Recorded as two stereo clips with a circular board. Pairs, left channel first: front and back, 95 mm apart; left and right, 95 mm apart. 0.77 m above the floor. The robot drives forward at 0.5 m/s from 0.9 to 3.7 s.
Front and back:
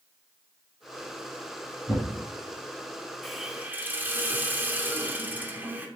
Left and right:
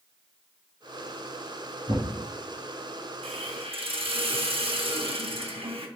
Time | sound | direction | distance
1.9 | a thud | 100° right | 2 m
3.2 | a hiss | 85° right | 0.6 m